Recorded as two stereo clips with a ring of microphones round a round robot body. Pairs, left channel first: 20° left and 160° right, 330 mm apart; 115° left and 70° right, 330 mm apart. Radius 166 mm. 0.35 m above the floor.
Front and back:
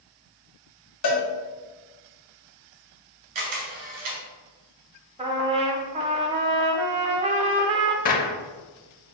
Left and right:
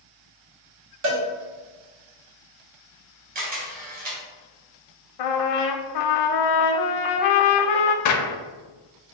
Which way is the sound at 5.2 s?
130° left.